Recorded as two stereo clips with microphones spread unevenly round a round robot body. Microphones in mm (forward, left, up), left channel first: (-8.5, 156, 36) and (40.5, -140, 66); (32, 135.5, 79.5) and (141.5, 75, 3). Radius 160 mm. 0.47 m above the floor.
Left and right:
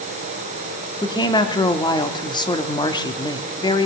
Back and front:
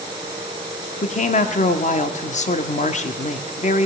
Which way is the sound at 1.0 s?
125° left.